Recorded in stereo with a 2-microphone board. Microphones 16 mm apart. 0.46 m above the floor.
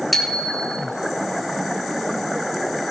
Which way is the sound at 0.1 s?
Centre (ahead or behind).